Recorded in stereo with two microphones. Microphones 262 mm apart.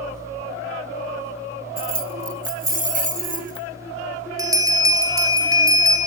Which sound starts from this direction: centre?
A bell, at 4.4 s.